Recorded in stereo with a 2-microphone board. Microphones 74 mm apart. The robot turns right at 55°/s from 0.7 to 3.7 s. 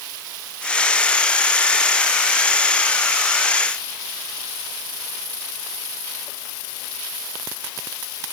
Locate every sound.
Only background noise.